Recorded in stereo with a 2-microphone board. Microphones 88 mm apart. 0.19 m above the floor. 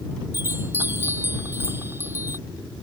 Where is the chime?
25° right (ahead or behind).